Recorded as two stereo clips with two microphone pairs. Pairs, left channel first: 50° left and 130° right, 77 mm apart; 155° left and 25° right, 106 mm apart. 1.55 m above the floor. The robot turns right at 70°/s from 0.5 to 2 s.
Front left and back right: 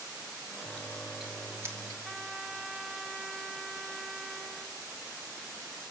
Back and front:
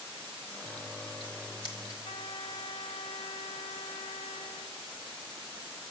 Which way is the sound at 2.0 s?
145° left.